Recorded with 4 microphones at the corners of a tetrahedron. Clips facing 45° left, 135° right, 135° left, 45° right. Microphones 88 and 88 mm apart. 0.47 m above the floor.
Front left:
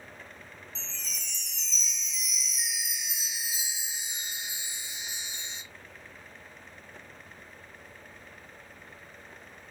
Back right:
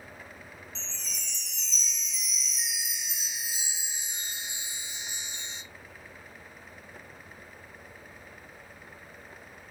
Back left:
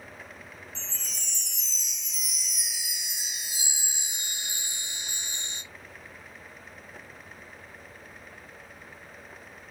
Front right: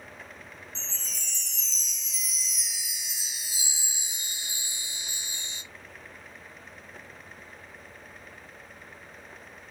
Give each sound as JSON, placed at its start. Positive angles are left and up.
{"t": 0.8, "sound": "a chime", "azimuth_deg": 130, "distance_m": 0.9}